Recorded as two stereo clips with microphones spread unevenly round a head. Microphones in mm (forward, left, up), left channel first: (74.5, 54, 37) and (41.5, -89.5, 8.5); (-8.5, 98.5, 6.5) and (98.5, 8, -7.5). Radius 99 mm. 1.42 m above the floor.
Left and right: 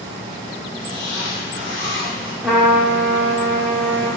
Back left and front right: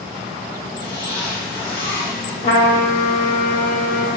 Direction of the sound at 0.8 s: 130° left.